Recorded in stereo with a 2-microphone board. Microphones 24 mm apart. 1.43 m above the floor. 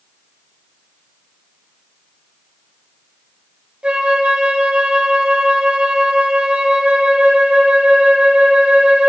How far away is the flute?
About 1.3 m.